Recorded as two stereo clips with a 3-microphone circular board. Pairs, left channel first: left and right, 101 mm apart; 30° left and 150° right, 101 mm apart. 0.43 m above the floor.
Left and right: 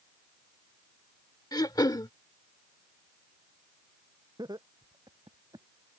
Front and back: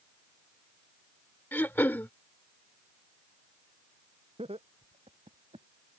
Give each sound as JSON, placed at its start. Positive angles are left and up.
{"t": 1.5, "sound": "throat clearing", "azimuth_deg": 90}
{"t": 4.4, "sound": "laughter", "azimuth_deg": -135}